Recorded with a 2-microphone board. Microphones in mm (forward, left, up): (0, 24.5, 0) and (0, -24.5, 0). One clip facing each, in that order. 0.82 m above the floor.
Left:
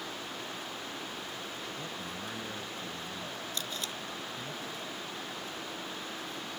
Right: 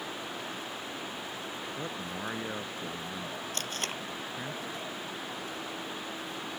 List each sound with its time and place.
1.8 s a man speaking: 30° right (ahead or behind)
3.5 s tape being pulled: 55° right (ahead or behind)